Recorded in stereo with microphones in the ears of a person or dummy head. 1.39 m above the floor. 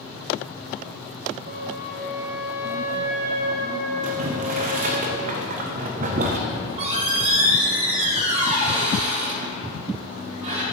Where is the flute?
55° right (ahead or behind), 0.8 m.